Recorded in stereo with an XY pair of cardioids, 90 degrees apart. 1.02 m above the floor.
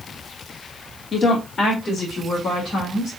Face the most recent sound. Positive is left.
turn(degrees=50)